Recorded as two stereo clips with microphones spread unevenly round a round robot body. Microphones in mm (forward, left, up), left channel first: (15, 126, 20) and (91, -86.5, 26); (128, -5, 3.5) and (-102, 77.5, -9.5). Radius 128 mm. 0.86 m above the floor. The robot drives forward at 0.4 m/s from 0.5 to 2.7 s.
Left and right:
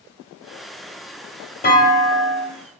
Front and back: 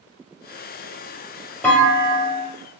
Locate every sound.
1.6 s a clunk: 60° left, 0.6 m; by 2.5 s 95° left, 0.6 m